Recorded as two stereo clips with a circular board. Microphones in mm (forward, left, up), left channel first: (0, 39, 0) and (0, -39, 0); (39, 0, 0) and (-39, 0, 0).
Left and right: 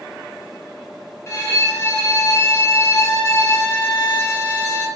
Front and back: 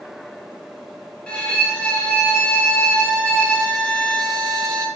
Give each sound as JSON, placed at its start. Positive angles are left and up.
{"t": 1.3, "sound": "a violin", "azimuth_deg": 70, "distance_m": 1.4}